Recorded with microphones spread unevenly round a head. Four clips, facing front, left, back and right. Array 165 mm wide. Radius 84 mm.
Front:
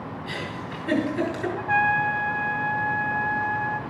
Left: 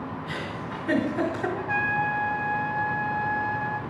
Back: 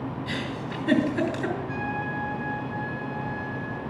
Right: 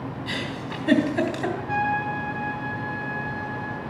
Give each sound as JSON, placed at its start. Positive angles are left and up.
{"t": 0.3, "sound": "a giggle", "azimuth_deg": -110, "distance_m": 2.5}
{"t": 1.6, "sound": "a trumpet", "azimuth_deg": 20, "distance_m": 1.0}